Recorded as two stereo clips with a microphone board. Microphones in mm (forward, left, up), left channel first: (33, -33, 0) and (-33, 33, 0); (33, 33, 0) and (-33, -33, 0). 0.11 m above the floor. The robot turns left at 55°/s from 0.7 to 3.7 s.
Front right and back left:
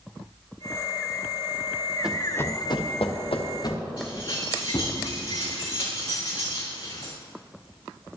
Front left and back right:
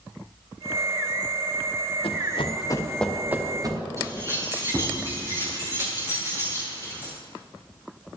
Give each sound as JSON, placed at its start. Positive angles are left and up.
{"t": 2.0, "sound": "running footsteps", "azimuth_deg": 55, "distance_m": 1.8}
{"t": 4.0, "sound": "keys jangling", "azimuth_deg": -80, "distance_m": 5.5}